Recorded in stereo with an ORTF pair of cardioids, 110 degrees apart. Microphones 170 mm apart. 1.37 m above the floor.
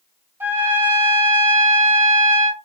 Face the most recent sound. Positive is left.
turn(degrees=-10)